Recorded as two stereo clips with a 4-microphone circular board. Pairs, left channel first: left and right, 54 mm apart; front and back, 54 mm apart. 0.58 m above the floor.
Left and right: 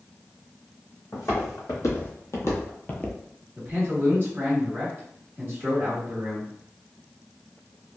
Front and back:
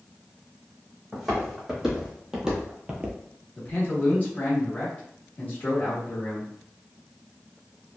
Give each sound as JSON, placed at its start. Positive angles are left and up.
{"t": 1.1, "sound": "footsteps", "azimuth_deg": 95, "distance_m": 1.9}
{"t": 3.5, "sound": "a man speaking", "azimuth_deg": -55, "distance_m": 1.2}